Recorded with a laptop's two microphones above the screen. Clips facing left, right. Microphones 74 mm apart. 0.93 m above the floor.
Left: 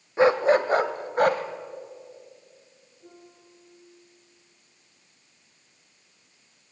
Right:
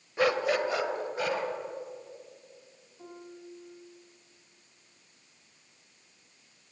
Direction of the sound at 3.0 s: 70° right (ahead or behind).